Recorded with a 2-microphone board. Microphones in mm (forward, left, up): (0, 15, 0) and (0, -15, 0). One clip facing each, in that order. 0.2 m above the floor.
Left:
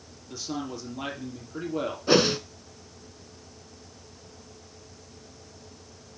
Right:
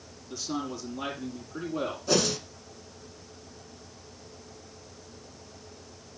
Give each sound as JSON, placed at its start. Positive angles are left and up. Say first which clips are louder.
{"t": 0.3, "sound": "a man speaking", "louder": "even", "side_deg": 10, "distance_m": 5.5}
{"t": 2.1, "sound": "a whoosh", "louder": "left 6 dB", "side_deg": 35, "distance_m": 0.8}